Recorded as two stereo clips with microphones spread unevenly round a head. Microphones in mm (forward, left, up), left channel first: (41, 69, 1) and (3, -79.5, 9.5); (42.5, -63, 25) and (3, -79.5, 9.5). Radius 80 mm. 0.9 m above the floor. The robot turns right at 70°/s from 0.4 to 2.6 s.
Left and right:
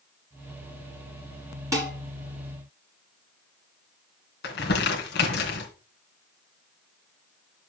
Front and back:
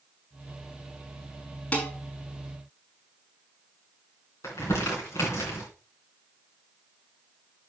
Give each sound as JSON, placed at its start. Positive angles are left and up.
{"t": 1.7, "sound": "dishes clattering", "azimuth_deg": -35, "distance_m": 5.5}
{"t": 4.4, "sound": "crumpling", "azimuth_deg": 60, "distance_m": 2.5}